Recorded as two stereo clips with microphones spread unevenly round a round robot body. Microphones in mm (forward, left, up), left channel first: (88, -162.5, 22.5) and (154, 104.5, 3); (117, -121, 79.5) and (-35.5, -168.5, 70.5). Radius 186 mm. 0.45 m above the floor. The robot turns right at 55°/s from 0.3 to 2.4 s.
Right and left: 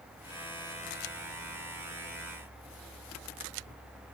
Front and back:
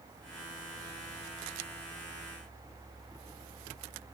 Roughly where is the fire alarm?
No fire alarm in this recording.